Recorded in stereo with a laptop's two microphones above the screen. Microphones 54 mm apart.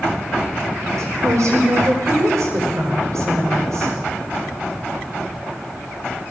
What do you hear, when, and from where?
1.0 s a woman speaking: 75° right (ahead or behind), 5 m